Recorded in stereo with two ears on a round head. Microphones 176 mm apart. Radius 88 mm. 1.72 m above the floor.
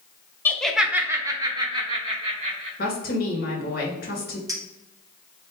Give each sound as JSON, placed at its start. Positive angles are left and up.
{"t": 0.5, "sound": "laughter", "side_deg": 10, "distance_m": 0.6}
{"t": 2.8, "sound": "a woman speaking", "side_deg": 45, "distance_m": 2.0}
{"t": 4.5, "sound": "a clink", "side_deg": -20, "distance_m": 1.4}